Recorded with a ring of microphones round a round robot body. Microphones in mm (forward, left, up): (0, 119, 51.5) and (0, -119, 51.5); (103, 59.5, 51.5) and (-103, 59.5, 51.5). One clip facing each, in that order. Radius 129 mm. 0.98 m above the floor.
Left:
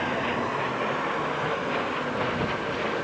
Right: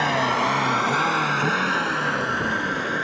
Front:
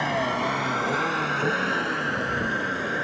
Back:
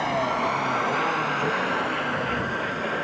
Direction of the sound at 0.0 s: 85° right.